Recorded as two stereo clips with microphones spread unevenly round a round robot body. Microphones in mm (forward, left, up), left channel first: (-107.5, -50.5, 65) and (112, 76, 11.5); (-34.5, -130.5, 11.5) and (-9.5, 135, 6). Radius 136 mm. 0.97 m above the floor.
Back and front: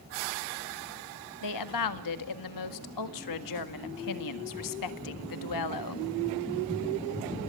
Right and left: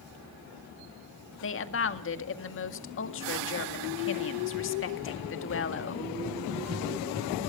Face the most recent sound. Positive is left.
turn(degrees=-140)